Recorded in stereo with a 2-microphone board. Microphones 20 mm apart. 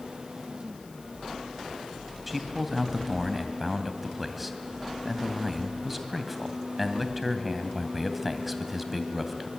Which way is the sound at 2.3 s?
5° right (ahead or behind).